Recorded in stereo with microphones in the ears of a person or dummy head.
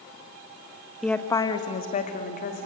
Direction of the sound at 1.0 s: Centre (ahead or behind).